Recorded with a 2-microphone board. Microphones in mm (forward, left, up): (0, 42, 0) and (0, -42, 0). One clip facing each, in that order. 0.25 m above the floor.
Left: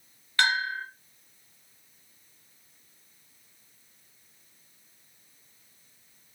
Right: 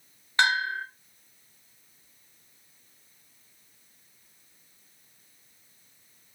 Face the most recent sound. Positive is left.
turn(degrees=-20)  # may be behind; listen again after turning